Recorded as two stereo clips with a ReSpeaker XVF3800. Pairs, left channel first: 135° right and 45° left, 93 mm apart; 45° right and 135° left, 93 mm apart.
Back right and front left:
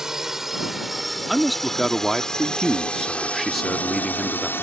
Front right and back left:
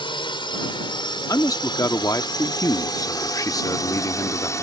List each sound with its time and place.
0.0 s a drone: 40° right; by 4.6 s 80° right
1.3 s a man speaking: 45° right